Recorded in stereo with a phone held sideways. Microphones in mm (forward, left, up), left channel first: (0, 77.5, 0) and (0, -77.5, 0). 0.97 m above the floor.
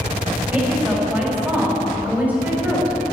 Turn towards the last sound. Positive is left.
turn(degrees=-10)  # may be behind; listen again after turning